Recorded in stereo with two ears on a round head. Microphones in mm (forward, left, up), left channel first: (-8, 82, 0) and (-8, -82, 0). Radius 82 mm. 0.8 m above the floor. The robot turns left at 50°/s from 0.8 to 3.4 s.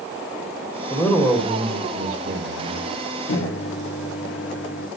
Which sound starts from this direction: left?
A microwave, at 3.3 s.